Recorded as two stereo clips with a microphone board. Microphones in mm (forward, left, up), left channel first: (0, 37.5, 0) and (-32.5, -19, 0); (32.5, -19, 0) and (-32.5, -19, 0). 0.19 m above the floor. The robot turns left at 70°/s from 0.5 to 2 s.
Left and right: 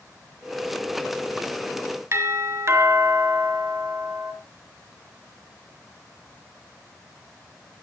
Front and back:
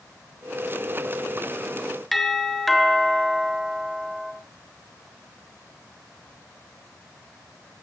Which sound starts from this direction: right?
A doorbell, at 2.1 s.